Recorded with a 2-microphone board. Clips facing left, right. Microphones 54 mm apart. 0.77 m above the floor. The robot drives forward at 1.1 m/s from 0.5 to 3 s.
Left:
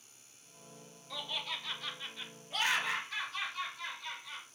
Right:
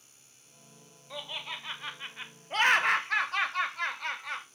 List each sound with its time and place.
1.1 s laughter: 20° right (ahead or behind), 2.5 m; by 4.5 s 65° right (ahead or behind), 0.8 m